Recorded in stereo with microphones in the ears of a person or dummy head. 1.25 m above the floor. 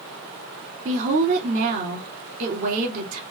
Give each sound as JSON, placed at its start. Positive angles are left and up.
{"t": 0.8, "sound": "a woman speaking", "side_deg": -50, "distance_m": 2.5}